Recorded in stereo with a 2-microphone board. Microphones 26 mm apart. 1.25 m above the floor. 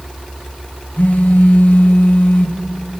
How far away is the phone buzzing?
About 2.5 m.